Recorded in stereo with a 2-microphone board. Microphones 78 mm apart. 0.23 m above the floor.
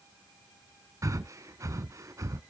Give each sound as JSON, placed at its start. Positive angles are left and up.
{"t": 1.0, "sound": "breathing", "side_deg": -40, "distance_m": 0.5}